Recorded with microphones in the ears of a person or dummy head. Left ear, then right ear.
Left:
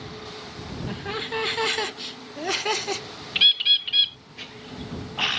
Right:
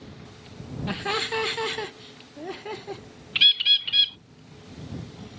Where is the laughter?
35° right (ahead or behind); by 3.0 s 75° left (ahead or behind).